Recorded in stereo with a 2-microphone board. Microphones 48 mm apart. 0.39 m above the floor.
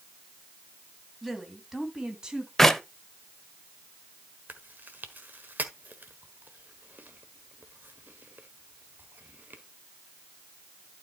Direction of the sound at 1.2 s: 5° right (ahead or behind).